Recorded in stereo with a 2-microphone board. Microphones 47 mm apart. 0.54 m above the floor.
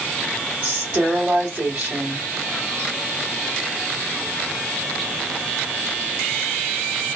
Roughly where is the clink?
I don't hear a clink.